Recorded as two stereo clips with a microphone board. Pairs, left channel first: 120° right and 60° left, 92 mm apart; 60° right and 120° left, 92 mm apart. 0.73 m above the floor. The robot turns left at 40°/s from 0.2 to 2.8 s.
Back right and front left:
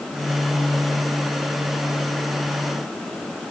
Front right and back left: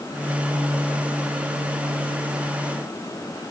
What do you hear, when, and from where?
Only background noise.